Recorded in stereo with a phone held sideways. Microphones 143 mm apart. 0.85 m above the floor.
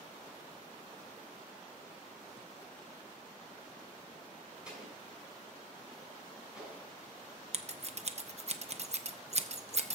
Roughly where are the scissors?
Right.